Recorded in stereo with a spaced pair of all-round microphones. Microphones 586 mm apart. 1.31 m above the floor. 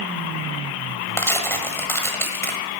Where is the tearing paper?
5° left (ahead or behind), 1.3 m.